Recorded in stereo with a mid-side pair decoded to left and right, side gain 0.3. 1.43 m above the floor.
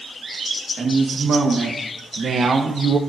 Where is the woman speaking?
60° right, 2 m.